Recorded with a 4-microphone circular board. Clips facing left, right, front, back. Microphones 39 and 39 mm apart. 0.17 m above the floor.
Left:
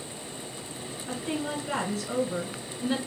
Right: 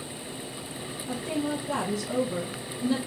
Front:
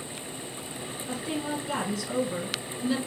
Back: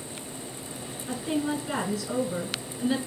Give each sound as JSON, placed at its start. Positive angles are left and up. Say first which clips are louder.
{"t": 1.1, "sound": "a woman speaking", "louder": "right 2 dB, back 4 dB", "azimuth_deg": 105, "distance_m": 1.3}